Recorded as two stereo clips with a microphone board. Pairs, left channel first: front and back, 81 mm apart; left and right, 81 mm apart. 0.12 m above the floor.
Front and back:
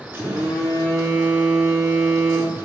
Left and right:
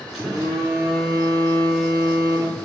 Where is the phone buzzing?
170° right, 1.7 m.